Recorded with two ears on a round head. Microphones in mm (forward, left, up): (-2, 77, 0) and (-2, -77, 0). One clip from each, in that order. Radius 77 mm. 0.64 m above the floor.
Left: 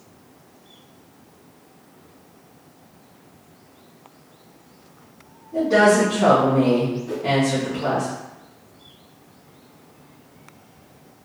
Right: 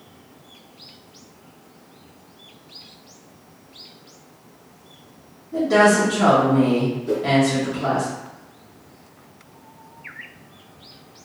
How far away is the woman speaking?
About 1.0 m.